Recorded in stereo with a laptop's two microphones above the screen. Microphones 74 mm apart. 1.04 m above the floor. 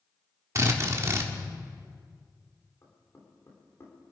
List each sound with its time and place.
0.6 s a drill: 40° right (ahead or behind), 1.1 m
2.8 s knocking: 35° left (ahead or behind), 3 m